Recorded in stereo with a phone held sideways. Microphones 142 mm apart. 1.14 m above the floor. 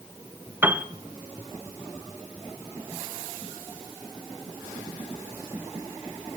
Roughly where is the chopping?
No chopping in this recording.